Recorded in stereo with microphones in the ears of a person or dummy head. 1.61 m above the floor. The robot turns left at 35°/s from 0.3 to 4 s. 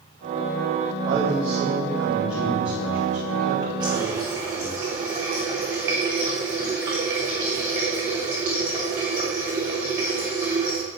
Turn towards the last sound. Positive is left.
turn(degrees=-15)  # may be behind; listen again after turning